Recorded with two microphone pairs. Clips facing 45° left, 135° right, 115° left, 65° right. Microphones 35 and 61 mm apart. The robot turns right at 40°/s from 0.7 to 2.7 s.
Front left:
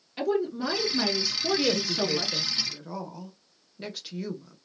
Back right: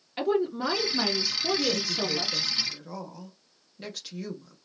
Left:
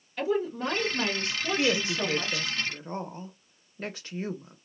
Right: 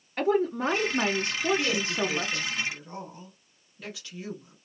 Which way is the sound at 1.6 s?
75° left.